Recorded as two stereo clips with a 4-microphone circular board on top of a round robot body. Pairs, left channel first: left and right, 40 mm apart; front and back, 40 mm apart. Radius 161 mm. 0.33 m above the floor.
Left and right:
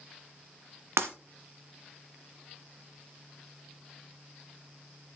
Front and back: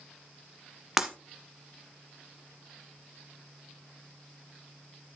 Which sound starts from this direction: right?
Breaking glass, at 1.0 s.